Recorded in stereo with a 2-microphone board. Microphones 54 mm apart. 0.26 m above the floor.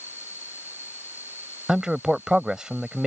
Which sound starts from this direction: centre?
A man speaking, at 1.7 s.